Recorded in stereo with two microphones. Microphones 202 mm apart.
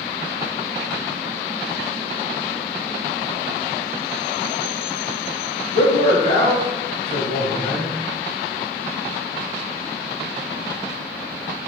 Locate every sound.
5.7 s a man speaking: 25° left (ahead or behind), 1.6 m; by 7.9 s 45° left (ahead or behind), 2.0 m